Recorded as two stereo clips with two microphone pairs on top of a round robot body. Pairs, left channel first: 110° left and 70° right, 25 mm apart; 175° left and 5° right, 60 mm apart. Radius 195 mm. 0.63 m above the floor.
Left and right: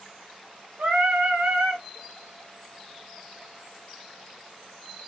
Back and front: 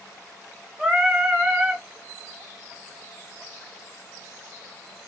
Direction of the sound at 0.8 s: 85° right.